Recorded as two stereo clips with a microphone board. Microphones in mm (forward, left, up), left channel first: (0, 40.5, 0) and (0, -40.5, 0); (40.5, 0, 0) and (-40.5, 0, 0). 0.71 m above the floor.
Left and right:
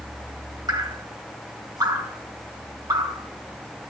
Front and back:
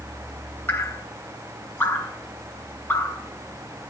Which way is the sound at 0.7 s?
60° right.